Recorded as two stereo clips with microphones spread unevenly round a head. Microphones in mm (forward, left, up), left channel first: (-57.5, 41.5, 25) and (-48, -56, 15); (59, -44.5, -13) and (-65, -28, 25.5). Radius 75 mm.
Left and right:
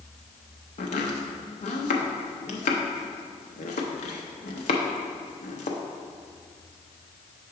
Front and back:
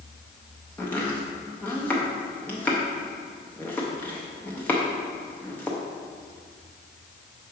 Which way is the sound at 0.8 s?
70° left.